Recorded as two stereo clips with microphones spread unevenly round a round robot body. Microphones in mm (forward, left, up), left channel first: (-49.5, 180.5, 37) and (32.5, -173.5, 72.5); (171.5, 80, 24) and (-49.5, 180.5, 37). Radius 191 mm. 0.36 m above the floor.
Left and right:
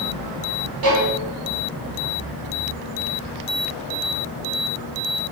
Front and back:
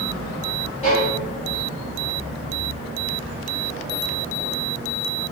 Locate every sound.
0.8 s a violin: 85° right, 2.5 m